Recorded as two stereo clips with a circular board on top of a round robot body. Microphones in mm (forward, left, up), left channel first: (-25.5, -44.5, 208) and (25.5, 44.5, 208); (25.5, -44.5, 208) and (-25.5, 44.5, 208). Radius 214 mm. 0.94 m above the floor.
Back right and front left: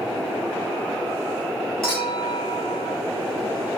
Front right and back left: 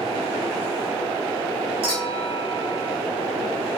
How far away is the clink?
About 1.6 m.